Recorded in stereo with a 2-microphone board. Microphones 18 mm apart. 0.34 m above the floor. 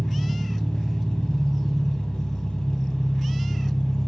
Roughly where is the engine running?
Left.